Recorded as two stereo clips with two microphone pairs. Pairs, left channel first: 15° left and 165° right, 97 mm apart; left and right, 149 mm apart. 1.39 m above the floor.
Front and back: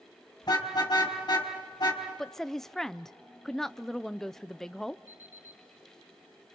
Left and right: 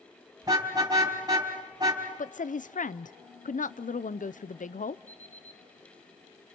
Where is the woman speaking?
100° left, 0.5 m.